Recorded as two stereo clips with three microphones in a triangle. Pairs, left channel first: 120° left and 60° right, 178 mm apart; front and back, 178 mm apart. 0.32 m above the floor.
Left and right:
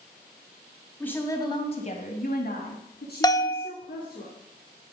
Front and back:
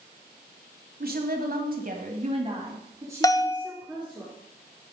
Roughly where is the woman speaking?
Behind.